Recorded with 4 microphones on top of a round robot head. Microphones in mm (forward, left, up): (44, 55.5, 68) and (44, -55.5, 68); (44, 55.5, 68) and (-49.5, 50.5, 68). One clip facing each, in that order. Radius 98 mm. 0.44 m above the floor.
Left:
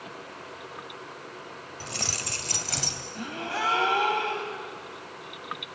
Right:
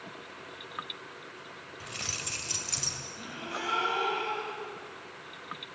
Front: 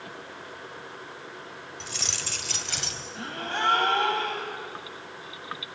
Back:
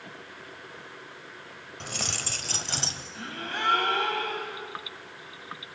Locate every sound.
1.8 s keys jangling: 150° left, 1.7 m; by 3.0 s 125° left, 2 m
3.1 s a gasp: 60° left, 3.5 m